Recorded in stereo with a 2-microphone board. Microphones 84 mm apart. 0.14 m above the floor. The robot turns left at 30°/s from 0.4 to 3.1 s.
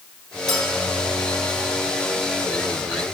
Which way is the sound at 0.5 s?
5° left (ahead or behind).